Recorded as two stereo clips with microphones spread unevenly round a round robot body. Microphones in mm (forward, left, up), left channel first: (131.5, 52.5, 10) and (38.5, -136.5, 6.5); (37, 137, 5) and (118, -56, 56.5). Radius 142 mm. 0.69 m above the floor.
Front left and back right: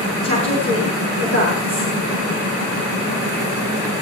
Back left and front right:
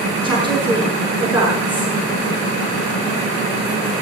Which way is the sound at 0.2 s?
165° right.